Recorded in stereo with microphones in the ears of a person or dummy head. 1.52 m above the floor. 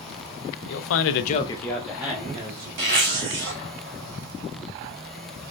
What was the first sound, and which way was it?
A man speaking, 70° left (ahead or behind).